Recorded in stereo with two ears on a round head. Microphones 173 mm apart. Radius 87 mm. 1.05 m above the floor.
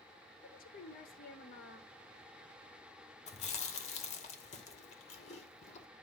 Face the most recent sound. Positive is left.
turn(degrees=40)  # may be behind; listen again after turning